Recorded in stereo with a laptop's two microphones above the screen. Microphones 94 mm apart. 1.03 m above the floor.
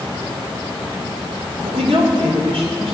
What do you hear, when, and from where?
1.6 s a woman speaking: 85° right, 2.5 m